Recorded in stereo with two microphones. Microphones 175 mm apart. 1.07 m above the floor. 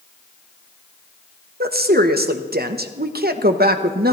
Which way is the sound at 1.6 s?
60° right (ahead or behind).